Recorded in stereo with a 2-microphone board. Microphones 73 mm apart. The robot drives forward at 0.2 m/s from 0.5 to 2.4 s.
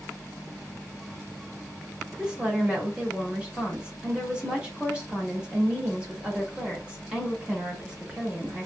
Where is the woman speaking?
15° right (ahead or behind), 0.9 m.